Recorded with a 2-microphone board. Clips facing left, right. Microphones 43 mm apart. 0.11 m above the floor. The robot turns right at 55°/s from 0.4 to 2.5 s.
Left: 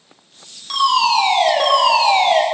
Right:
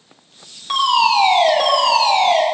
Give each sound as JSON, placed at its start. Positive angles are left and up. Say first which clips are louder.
{"t": 0.7, "sound": "a fire alarm", "louder": "even", "azimuth_deg": -40, "distance_m": 3.5}